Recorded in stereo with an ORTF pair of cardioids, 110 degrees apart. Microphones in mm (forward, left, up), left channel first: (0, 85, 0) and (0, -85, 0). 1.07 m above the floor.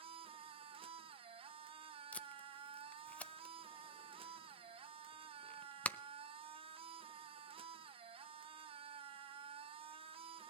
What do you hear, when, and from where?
0.0 s a machine running: 35° right, 1.1 m
2.1 s tape being pulled: 10° left, 0.6 m